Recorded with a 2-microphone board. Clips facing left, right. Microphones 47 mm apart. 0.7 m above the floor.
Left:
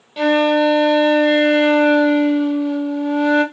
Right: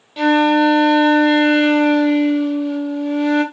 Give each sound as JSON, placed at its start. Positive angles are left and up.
{"t": 0.2, "sound": "a flute", "side_deg": 0, "distance_m": 0.7}